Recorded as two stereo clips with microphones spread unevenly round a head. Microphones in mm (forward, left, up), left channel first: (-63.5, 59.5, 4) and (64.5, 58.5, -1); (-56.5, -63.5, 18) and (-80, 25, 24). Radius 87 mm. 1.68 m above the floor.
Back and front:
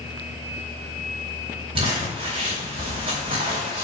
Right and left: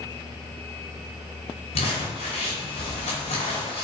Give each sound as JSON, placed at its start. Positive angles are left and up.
{"t": 1.8, "sound": "crumpling", "azimuth_deg": -65, "distance_m": 2.5}